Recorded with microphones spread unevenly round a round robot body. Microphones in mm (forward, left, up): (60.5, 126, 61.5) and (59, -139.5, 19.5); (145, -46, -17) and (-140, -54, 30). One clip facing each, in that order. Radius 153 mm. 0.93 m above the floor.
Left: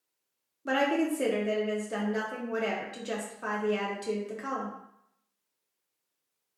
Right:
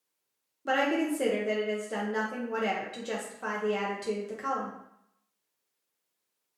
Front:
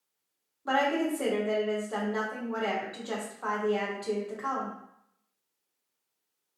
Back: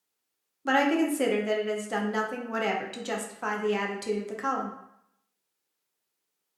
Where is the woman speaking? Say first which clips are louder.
Left 1 dB, back 4 dB; 170° right, 0.6 m.